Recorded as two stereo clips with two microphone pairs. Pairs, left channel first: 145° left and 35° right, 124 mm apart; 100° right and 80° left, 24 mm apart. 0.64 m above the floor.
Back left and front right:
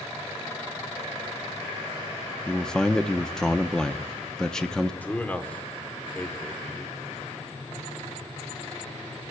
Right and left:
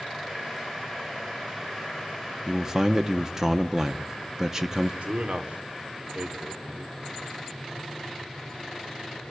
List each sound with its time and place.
2.5 s a man speaking: 65° left, 0.8 m
5.0 s a man speaking: 65° left, 1.4 m